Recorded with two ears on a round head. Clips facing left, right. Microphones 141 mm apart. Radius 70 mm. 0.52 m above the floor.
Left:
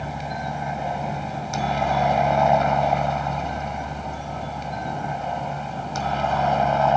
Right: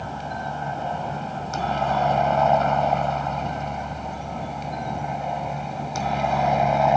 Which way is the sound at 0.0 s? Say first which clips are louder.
Left 1 dB; 10° left (ahead or behind).